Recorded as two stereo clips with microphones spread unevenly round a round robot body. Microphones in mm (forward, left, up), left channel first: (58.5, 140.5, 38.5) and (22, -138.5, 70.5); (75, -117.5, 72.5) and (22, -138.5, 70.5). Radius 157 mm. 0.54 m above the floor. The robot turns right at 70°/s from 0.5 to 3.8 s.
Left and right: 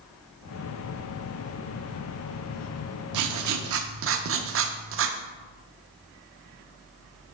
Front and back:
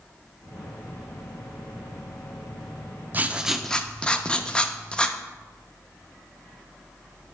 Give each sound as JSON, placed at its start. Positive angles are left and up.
{"t": 3.1, "sound": "writing", "azimuth_deg": -100, "distance_m": 0.7}